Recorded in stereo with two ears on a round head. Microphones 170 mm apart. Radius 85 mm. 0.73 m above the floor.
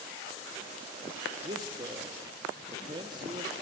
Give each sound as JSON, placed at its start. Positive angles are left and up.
{"t": 1.4, "sound": "a man speaking", "side_deg": -25, "distance_m": 0.8}